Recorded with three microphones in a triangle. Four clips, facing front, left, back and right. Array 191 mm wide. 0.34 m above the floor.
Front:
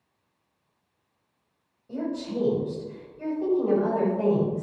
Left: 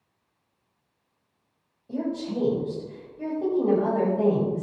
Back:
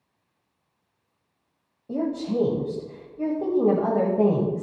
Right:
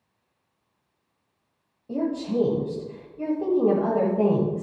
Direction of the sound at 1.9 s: 160° right.